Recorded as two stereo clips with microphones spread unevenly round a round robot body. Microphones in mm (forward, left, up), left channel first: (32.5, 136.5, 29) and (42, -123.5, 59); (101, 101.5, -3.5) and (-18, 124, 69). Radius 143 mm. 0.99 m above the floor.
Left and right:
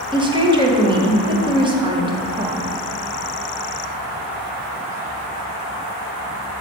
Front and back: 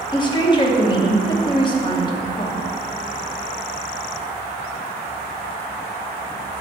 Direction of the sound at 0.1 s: 15° right.